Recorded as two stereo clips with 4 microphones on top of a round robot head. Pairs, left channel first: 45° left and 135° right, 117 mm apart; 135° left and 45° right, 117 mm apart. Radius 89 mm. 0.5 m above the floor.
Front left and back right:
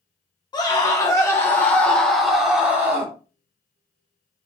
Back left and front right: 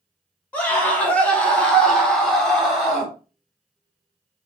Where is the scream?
70° left, 1.5 m; by 3.1 s 130° right, 1.3 m.